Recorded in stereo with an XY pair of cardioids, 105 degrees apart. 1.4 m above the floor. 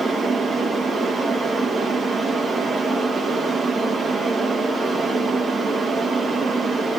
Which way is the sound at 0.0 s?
40° right.